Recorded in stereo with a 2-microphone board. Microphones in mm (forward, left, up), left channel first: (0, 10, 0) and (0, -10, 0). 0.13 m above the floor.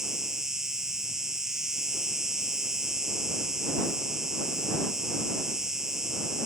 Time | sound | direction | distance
0.0 | an insect | 25° right (ahead or behind) | ?